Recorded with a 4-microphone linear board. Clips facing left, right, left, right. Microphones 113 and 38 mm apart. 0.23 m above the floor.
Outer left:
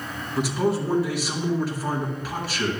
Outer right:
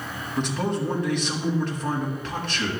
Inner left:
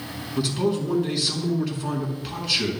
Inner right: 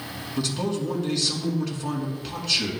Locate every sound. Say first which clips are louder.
0.4 s a man speaking: outer left 3 dB, inner left 3 dB; 5° left (ahead or behind), 3 m